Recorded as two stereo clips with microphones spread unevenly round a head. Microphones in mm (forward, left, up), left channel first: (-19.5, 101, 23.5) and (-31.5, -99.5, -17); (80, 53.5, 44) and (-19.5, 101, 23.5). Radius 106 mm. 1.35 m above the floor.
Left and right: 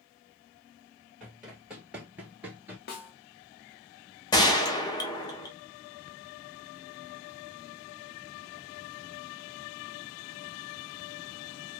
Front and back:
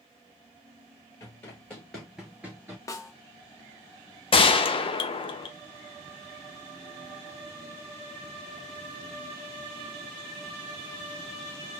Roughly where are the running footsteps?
Ahead.